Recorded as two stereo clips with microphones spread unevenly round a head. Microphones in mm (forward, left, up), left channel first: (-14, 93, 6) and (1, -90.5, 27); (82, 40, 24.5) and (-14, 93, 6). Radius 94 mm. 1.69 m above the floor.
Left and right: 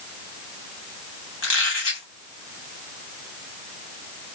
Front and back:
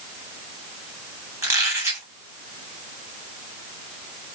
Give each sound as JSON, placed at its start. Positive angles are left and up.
{"t": 1.4, "sound": "a squeak", "azimuth_deg": 80, "distance_m": 1.6}